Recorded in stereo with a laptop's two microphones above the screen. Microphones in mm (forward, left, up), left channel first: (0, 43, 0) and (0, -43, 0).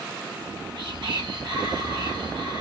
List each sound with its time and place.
0.4 s whispering: 65° right (ahead or behind), 3 m